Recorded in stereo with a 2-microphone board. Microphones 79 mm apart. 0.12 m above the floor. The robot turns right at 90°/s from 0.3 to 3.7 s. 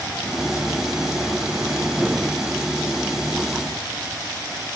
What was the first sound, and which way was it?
Only background noise.